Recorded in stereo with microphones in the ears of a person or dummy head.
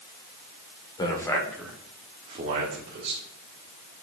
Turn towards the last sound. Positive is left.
turn(degrees=-65)  # may be behind; listen again after turning